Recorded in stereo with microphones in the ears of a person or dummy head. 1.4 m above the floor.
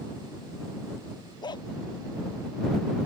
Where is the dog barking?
30° left (ahead or behind).